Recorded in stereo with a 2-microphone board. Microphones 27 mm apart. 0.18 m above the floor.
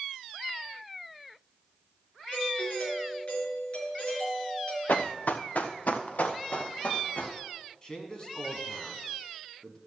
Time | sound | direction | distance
2.3 | a doorbell | 50° left (ahead or behind) | 4 m
4.9 | running footsteps | 70° left (ahead or behind) | 0.9 m
7.8 | a man speaking | 30° left (ahead or behind) | 1.8 m